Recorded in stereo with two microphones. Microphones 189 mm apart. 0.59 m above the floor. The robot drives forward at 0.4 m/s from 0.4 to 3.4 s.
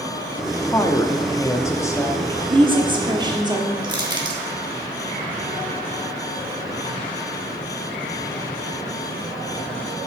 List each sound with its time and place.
0.7 s a woman speaking: 15° left (ahead or behind), 0.6 m
2.5 s a woman speaking: 30° right (ahead or behind), 0.9 m; by 3.7 s 20° right (ahead or behind), 1.1 m
3.8 s crushing: 25° right (ahead or behind), 1.0 m